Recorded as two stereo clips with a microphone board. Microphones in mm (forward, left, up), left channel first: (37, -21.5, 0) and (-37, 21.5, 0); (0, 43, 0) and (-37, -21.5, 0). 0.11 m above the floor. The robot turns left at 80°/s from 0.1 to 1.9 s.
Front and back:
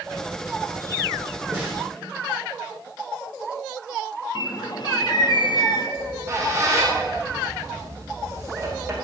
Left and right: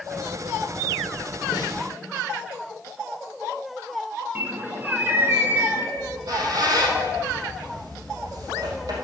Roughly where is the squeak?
Behind right.